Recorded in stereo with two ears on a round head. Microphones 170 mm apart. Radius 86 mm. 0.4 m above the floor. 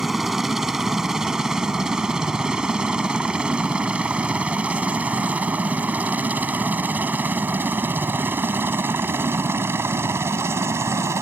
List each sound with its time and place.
0.0 s a helicopter: centre (ahead or behind); by 11.2 s 15° right (ahead or behind)